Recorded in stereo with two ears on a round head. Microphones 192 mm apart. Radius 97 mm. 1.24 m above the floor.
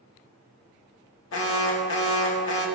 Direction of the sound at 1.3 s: 70° left (ahead or behind).